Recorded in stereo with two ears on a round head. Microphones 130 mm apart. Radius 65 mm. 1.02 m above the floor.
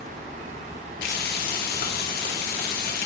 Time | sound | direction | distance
1.0 | frying | 70° left (ahead or behind) | 0.8 m